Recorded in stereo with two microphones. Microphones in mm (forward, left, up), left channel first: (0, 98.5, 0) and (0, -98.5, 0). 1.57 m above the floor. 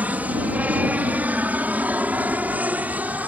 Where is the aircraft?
10° right (ahead or behind).